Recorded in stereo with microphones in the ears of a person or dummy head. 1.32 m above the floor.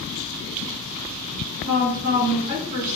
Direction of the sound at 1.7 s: 25° right (ahead or behind).